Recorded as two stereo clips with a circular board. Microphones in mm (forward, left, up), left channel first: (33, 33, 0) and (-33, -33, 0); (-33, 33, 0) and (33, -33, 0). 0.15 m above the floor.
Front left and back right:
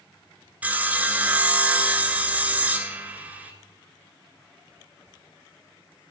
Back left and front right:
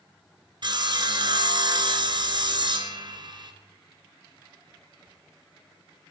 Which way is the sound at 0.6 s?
65° right.